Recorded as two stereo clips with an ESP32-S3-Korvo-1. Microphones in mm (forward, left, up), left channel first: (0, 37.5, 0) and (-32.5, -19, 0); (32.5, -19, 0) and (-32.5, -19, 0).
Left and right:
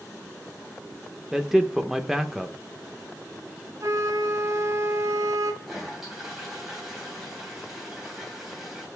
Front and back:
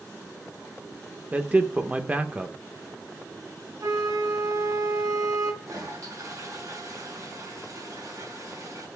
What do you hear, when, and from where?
1.3 s a man speaking: 165° left, 0.7 m
3.8 s a flute: 155° right, 1.2 m
5.6 s a toilet flushing: 155° left, 2.5 m